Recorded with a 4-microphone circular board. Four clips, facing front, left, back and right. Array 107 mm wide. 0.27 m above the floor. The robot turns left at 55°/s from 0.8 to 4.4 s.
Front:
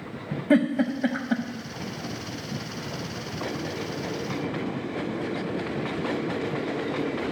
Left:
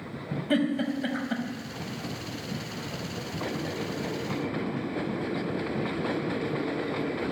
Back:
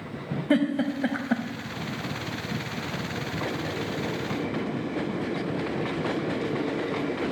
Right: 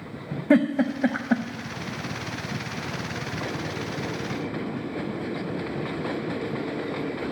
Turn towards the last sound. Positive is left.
turn(degrees=80)